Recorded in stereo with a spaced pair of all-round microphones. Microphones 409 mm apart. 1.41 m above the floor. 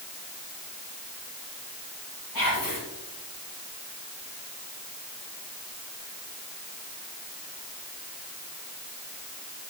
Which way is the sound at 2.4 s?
55° left (ahead or behind).